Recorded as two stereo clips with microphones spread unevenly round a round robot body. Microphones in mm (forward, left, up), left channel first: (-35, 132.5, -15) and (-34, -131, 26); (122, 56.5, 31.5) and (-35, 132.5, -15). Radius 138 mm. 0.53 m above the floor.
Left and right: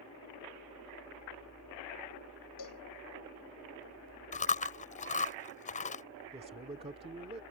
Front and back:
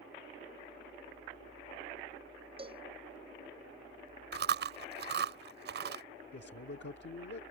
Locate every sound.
2.6 s a cowbell: 95° left
4.3 s chewing: 150° left
6.3 s a man speaking: 20° right